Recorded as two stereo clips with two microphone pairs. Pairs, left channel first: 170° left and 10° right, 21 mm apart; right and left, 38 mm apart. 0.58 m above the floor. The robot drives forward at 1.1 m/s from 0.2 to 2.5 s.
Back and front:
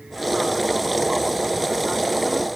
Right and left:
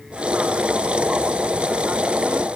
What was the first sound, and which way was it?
Only background noise.